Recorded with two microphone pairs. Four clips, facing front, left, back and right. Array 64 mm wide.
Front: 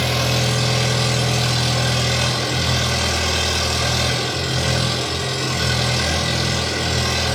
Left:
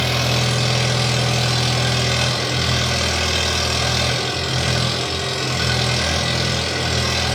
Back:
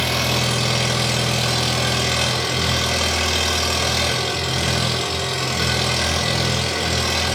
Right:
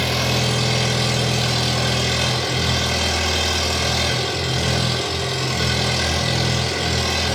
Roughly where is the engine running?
Behind left.